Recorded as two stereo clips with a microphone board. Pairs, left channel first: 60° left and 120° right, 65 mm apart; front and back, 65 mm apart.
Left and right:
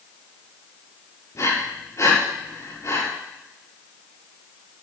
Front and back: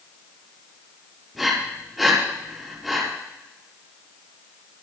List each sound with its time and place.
1.4 s breathing: 90° left, 4.5 m